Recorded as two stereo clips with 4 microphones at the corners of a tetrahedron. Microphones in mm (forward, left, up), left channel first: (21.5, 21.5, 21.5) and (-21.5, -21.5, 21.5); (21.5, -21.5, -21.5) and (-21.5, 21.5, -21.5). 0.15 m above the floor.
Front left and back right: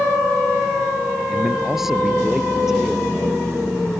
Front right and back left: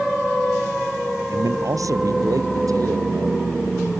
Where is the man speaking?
140° left; by 3.4 s 145° left.